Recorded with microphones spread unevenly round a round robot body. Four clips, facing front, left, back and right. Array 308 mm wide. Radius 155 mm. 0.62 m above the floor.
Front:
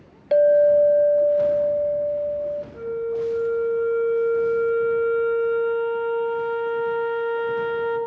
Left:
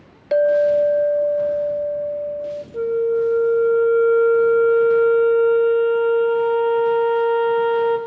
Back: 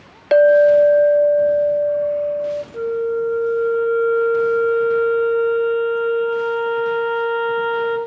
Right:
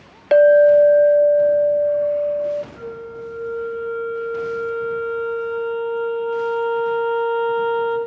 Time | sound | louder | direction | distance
0.3 | a clink | right 5 dB, back 4 dB | 155° right | 0.8 m
2.7 | a flute | left 13 dB, back 8 dB | 125° left | 3 m